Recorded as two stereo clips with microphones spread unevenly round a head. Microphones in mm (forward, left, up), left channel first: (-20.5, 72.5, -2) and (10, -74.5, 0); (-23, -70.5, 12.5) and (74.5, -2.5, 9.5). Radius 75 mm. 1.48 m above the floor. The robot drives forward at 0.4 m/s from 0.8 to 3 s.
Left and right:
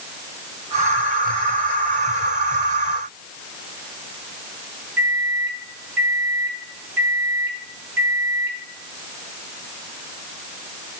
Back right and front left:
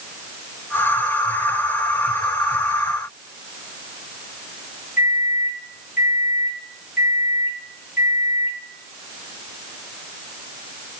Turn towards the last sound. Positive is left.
turn(degrees=-160)